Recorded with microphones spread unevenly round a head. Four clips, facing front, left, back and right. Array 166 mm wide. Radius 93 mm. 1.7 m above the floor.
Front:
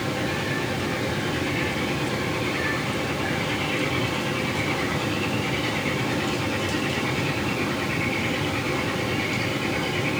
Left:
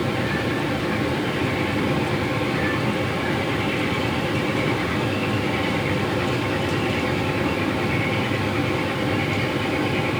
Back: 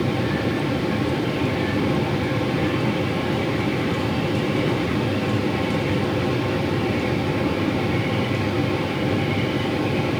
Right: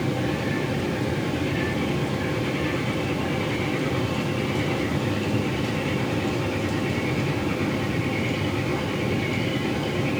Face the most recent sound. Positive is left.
No sound to turn to.